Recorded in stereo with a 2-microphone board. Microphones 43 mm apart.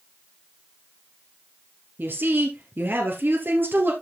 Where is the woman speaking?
55° right (ahead or behind), 2.5 m.